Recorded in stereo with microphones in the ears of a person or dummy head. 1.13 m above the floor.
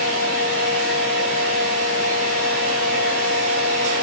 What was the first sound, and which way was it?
A fan, 60° right (ahead or behind).